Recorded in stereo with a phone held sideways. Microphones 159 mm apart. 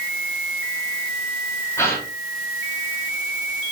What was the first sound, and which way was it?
A gasp, 15° left (ahead or behind).